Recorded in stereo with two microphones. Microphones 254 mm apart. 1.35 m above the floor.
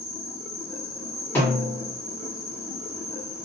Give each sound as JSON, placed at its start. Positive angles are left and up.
{"t": 0.0, "sound": "an insect", "side_deg": 10, "distance_m": 1.4}
{"t": 1.4, "sound": "a snare drum", "side_deg": 10, "distance_m": 1.8}